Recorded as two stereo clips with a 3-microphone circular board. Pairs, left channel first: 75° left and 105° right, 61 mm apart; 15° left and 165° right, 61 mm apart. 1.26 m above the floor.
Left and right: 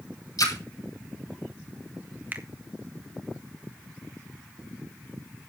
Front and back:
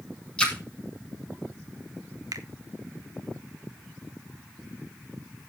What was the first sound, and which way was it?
A splash, 90° left.